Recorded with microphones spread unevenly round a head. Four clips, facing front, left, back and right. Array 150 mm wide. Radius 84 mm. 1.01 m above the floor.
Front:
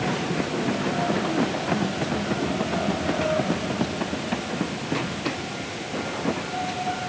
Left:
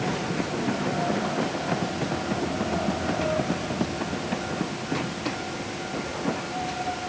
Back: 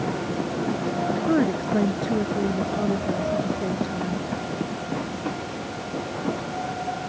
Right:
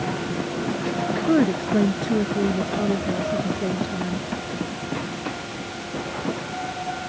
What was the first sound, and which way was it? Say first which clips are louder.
A woman speaking: right 7 dB, back 3 dB; 110° right.